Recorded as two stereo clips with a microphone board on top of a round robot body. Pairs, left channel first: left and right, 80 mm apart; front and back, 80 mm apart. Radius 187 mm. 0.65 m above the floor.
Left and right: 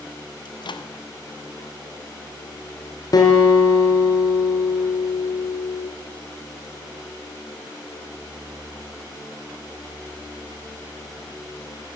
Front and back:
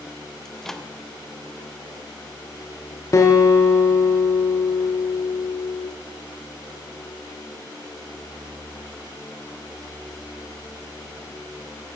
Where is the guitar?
50° left, 3.5 m.